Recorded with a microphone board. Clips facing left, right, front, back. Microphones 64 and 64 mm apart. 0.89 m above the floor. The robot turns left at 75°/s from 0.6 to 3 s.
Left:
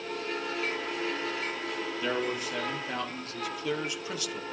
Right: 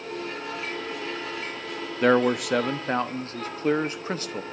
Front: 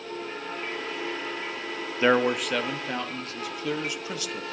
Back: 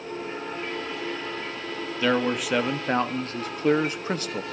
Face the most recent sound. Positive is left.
turn(degrees=-135)